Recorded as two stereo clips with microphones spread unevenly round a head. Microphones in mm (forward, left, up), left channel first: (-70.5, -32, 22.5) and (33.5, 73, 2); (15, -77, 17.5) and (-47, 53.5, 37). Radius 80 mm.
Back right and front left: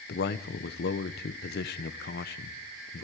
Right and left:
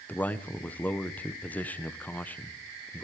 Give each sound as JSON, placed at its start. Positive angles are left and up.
{"t": 0.1, "sound": "a man speaking", "azimuth_deg": -140, "distance_m": 0.9}